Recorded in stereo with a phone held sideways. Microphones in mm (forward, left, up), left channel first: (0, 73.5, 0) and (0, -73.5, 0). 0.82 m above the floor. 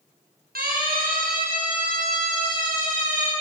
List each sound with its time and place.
0.6 s a siren: 85° right, 7.5 m; by 3.3 s 60° right (ahead or behind), 9.5 m